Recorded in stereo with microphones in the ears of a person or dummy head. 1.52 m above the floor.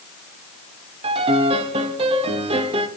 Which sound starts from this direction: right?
A piano, at 1.0 s.